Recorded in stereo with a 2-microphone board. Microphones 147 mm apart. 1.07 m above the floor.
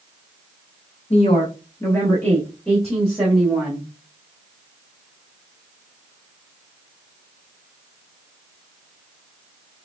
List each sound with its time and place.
1.1 s a woman speaking: 50° left (ahead or behind), 0.6 m; by 3.9 s 5° right (ahead or behind), 1.8 m